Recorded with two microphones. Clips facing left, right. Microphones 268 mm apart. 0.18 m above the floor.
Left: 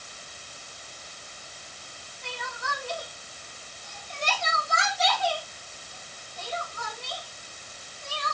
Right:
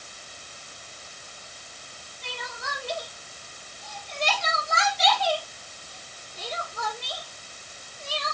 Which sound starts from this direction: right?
Crying, at 2.2 s.